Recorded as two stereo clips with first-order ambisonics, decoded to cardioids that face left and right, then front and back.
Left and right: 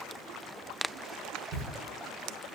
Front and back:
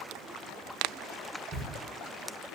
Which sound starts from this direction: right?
A camera shutter, at 1.5 s.